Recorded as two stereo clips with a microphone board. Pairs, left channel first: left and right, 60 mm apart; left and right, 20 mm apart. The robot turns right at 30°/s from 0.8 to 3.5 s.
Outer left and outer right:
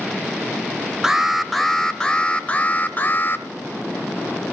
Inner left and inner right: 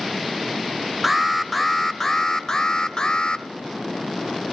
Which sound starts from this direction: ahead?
An alarm, at 1.0 s.